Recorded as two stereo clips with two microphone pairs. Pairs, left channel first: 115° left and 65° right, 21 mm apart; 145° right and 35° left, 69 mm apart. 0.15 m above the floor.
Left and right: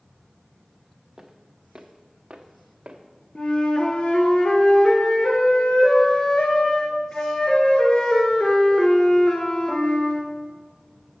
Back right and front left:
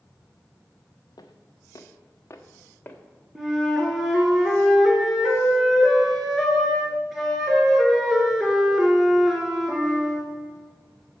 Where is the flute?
125° left, 1.4 m.